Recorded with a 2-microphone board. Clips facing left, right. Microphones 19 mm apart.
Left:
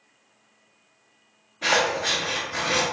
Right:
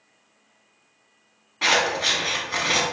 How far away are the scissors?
About 1.7 m.